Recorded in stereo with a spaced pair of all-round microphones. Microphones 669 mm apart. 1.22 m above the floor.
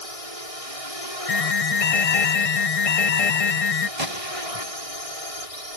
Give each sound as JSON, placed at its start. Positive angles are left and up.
{"t": 0.0, "sound": "a drone", "side_deg": 50}
{"t": 1.3, "sound": "an alarm", "side_deg": 55}
{"t": 4.0, "sound": "a gunshot", "side_deg": -55}